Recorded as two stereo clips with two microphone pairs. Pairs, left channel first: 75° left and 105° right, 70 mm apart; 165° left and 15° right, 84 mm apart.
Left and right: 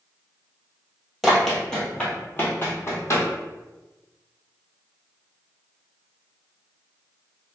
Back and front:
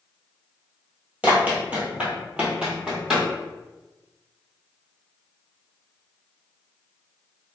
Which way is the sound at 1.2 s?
20° right.